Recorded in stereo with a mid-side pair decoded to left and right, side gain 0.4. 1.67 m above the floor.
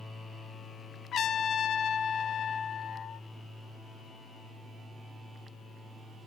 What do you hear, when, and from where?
1.1 s a trumpet: 65° left, 1.0 m